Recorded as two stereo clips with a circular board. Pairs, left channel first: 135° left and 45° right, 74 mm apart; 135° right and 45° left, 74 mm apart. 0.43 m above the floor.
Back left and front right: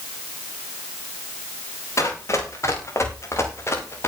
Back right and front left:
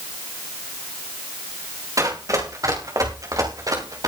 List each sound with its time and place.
2.0 s running footsteps: 85° left, 7.5 m; by 4.1 s 80° left, 5.5 m